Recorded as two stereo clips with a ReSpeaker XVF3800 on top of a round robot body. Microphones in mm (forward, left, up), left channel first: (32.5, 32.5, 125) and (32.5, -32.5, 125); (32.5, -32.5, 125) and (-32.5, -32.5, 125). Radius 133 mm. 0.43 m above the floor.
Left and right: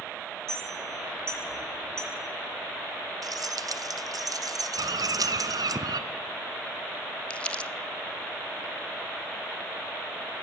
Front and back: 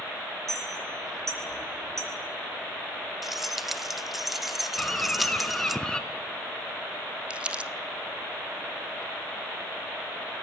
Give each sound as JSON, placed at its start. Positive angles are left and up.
{"t": 0.5, "sound": "a clink", "azimuth_deg": -140, "distance_m": 7.5}
{"t": 3.2, "sound": "keys jangling", "azimuth_deg": -90, "distance_m": 1.4}
{"t": 4.8, "sound": "a bird", "azimuth_deg": -75, "distance_m": 2.0}
{"t": 7.3, "sound": "crumpling", "azimuth_deg": 135, "distance_m": 1.3}